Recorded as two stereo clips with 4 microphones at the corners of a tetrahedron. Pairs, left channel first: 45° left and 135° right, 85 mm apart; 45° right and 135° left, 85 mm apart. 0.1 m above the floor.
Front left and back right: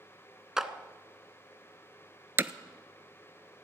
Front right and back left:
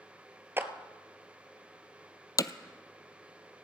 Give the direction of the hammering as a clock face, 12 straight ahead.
3 o'clock.